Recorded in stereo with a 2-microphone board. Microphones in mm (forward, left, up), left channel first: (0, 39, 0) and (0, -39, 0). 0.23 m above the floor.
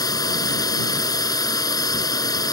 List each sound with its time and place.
0.0 s a drone: 55° left (ahead or behind)